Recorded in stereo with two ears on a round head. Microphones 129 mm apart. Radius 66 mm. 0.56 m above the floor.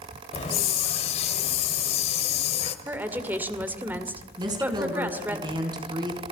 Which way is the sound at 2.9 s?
15° right (ahead or behind).